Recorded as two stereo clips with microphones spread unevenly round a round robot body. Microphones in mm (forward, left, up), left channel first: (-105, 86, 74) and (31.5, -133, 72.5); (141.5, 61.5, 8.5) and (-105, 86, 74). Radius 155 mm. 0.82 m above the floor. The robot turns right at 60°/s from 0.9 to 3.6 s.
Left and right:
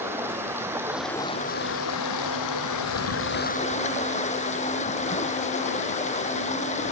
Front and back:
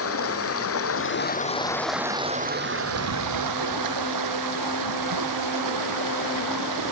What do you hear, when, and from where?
0.0 s running water: 25° left; by 6.9 s 175° right